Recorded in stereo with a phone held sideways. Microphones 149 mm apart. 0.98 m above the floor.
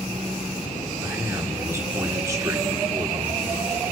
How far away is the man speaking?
About 2.5 m.